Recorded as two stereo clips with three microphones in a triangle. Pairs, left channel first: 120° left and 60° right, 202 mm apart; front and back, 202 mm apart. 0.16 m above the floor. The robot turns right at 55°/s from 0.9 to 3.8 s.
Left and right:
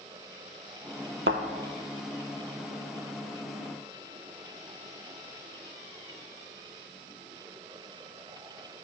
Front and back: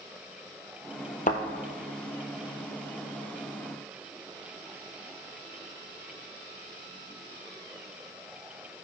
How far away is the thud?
About 0.7 m.